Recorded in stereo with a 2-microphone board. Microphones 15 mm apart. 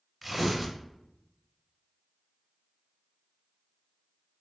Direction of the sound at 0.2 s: 5° right (ahead or behind).